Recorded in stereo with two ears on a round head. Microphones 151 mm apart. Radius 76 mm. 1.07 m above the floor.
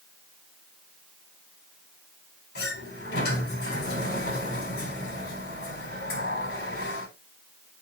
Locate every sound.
2.5 s a sliding door: 65° left (ahead or behind), 4 m